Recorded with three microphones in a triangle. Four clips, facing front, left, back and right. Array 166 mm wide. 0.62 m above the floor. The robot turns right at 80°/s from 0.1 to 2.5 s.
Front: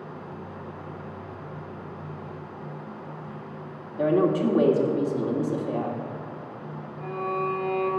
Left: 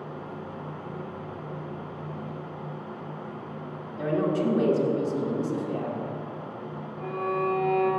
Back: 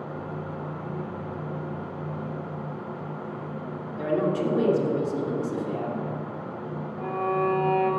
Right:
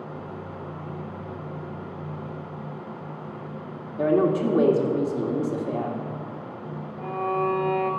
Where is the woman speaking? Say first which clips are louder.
Right 5 dB, front 4 dB; 60° right, 1.8 m.